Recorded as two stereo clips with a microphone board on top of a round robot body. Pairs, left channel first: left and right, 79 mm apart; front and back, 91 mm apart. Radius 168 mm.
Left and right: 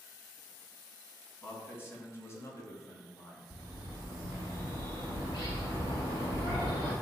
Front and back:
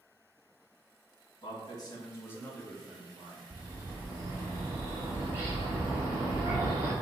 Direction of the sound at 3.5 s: 120° left.